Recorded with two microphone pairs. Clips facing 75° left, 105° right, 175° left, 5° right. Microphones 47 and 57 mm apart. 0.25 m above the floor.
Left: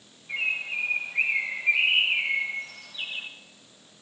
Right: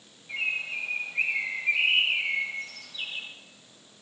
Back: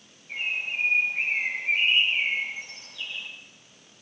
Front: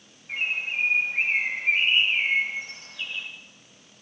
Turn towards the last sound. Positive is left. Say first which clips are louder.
# left 2 dB, front 2 dB
turn(degrees=0)